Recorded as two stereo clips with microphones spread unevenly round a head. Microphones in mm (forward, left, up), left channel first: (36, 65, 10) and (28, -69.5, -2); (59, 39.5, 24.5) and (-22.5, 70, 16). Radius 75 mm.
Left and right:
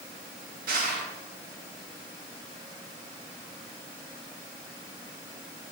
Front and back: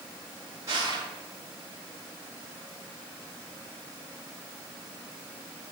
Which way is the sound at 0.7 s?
130° right.